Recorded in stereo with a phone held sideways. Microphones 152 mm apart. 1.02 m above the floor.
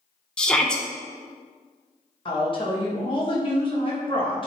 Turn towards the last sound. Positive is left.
turn(degrees=35)  # may be behind; listen again after turning